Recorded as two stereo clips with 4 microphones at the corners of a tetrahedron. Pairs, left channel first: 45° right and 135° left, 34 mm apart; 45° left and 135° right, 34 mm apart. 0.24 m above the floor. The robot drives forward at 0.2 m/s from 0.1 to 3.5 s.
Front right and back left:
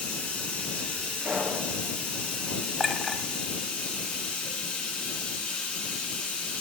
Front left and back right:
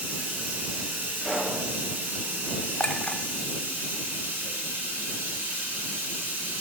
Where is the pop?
135° left, 4 m.